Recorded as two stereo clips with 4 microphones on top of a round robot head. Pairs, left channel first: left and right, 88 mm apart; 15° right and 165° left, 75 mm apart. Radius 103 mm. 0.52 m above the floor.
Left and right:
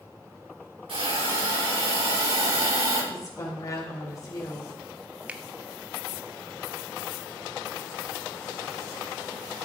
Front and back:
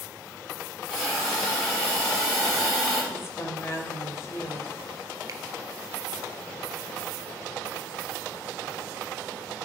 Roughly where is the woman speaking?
Ahead left.